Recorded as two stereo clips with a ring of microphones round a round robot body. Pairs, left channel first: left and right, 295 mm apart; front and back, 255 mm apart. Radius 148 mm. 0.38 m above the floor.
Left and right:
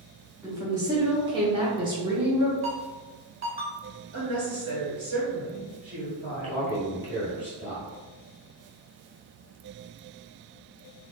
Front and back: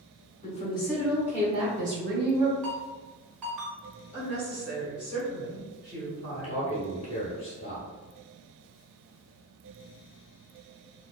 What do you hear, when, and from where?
0.4 s a woman speaking: 20° right, 0.9 m; by 2.5 s 160° right, 1.1 m
2.6 s a ringtone: 150° right, 1.5 m
4.1 s a woman speaking: 95° right, 1.7 m
6.3 s a man speaking: 40° left, 1.3 m